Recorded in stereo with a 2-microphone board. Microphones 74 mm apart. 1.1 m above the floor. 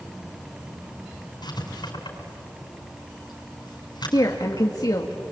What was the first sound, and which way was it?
Writing, 75° left (ahead or behind).